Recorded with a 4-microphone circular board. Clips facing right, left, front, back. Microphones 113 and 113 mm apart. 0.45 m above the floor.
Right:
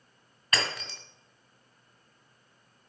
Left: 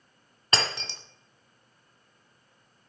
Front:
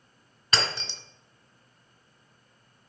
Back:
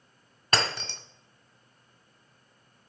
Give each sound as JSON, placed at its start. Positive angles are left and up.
{"t": 0.5, "sound": "breaking glass", "azimuth_deg": 150, "distance_m": 1.7}